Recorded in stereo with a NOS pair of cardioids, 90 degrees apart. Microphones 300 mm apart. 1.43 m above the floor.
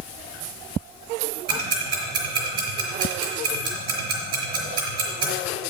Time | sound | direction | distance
1.5 | ticking | 60° right | 4.5 m